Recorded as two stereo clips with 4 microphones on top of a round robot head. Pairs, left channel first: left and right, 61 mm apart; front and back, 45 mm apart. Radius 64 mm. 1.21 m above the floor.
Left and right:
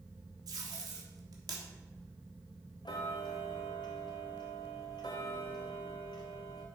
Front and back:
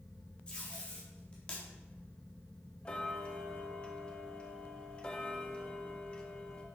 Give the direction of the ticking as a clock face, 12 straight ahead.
10 o'clock.